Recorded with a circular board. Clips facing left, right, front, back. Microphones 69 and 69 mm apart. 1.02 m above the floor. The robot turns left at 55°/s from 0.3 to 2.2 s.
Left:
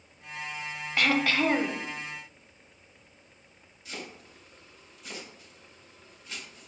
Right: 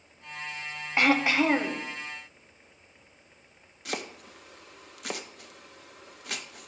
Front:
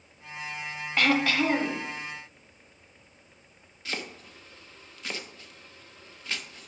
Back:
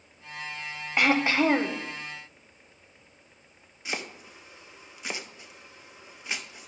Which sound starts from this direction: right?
Chopping, at 3.9 s.